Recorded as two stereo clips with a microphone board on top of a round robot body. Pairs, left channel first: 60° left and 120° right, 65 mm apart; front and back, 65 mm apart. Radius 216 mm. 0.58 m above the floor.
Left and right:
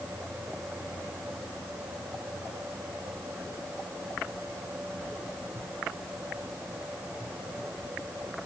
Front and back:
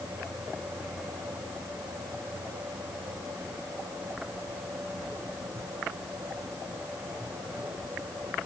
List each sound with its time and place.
Only background noise.